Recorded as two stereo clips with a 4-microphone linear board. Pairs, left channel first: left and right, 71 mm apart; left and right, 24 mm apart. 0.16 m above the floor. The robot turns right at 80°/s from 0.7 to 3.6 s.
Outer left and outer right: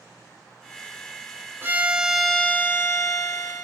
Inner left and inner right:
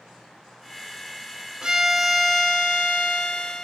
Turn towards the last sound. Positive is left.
turn(degrees=110)